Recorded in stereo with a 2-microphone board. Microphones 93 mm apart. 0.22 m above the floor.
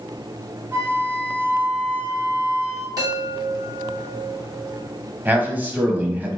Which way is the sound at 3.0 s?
45° right (ahead or behind).